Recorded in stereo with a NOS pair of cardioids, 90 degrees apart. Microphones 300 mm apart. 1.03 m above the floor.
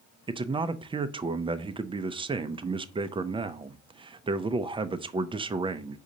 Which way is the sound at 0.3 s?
15° right.